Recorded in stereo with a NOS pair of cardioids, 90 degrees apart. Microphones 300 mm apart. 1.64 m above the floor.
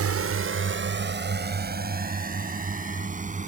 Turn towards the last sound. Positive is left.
turn(degrees=-25)